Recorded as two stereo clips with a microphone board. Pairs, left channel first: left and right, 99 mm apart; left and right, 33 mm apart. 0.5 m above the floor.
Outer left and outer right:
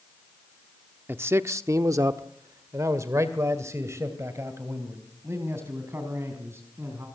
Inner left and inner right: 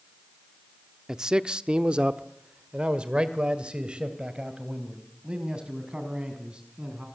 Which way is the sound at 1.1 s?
20° right (ahead or behind).